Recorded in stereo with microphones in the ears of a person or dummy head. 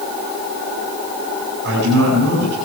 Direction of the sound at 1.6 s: 60° right (ahead or behind).